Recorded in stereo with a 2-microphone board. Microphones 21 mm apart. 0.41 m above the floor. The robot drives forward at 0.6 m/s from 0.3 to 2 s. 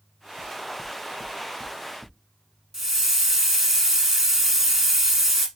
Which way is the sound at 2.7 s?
15° right (ahead or behind).